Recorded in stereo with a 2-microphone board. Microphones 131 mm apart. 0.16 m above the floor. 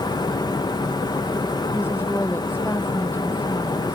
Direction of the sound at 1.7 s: 15° left (ahead or behind).